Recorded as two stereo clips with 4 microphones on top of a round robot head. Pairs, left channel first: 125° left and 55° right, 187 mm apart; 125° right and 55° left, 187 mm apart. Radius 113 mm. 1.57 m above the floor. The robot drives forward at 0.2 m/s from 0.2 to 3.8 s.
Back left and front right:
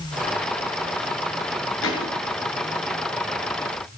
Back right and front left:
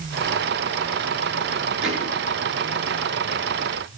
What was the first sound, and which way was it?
A thud, 140° left.